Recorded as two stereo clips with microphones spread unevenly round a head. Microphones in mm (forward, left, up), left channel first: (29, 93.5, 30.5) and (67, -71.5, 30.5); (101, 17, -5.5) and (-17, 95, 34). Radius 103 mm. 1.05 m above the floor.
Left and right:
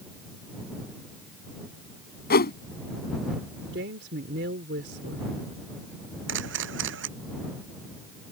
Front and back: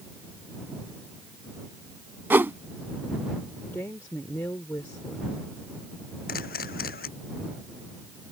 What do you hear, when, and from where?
2.3 s a whoosh: 75° left
3.7 s a woman speaking: 115° right
6.3 s a camera shutter: 75° right